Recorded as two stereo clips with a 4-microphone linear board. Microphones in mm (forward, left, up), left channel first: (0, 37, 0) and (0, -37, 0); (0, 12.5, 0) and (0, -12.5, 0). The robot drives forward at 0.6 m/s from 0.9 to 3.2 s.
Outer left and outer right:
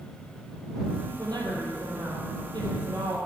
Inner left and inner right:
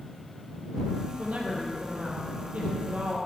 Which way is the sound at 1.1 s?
65° right (ahead or behind).